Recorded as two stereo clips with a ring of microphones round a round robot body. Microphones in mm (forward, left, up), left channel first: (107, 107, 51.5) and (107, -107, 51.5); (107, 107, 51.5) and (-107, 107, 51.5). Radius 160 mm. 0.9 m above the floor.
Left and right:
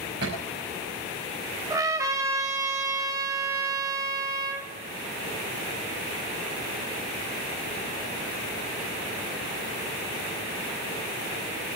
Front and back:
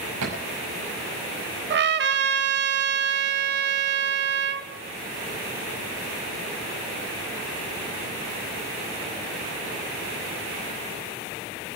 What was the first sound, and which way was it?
A thud, 150° right.